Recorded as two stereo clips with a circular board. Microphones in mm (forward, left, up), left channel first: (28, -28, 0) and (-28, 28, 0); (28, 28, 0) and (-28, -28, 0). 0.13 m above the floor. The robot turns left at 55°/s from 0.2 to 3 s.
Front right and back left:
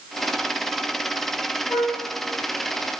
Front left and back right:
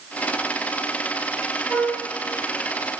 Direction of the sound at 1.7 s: 80° right.